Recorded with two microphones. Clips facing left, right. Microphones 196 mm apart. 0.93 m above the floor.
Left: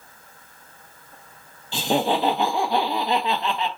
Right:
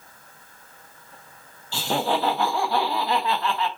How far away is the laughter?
About 0.5 m.